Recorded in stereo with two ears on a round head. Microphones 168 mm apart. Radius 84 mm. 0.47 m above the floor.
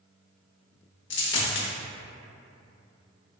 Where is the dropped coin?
65° left (ahead or behind), 0.6 m.